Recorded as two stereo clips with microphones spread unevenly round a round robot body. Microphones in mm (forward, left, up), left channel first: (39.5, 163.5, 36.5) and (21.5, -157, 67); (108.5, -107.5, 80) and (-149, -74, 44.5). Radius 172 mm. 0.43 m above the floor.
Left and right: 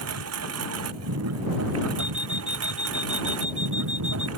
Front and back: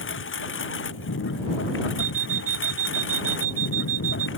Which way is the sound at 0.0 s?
50° right.